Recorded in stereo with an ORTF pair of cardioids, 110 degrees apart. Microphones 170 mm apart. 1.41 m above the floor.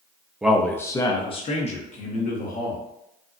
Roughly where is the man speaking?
Ahead.